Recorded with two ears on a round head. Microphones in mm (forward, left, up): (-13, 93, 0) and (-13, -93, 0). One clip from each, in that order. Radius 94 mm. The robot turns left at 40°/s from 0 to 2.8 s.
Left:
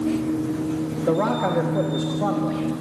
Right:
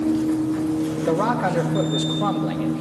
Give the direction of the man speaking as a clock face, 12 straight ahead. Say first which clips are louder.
Even; 1 o'clock.